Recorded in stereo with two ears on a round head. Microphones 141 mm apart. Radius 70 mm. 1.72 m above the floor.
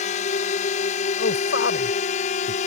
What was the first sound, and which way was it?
A drone, 45° left (ahead or behind).